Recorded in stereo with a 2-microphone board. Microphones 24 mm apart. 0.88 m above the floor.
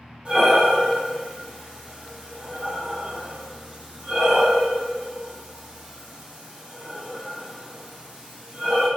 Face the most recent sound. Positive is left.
turn(degrees=-35)  # may be behind; listen again after turning